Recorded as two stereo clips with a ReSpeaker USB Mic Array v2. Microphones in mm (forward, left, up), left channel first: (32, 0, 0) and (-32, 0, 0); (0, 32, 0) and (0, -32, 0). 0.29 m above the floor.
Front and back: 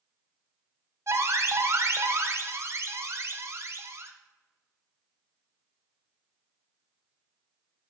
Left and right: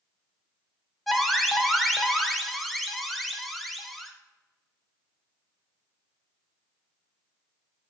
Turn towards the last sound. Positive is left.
turn(degrees=175)